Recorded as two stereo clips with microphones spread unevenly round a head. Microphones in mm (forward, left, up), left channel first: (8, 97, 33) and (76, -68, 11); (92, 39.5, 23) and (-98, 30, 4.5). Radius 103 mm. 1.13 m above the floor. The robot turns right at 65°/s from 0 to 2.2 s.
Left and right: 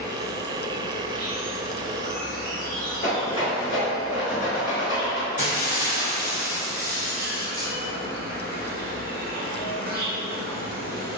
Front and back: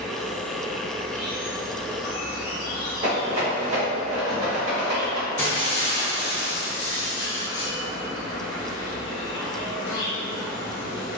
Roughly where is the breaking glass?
Left.